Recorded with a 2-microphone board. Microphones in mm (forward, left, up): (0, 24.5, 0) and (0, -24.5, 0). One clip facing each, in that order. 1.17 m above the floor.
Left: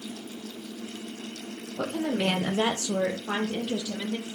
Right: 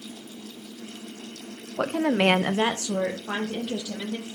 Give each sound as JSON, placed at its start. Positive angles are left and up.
{"t": 1.8, "sound": "a woman speaking", "side_deg": -50, "distance_m": 0.8}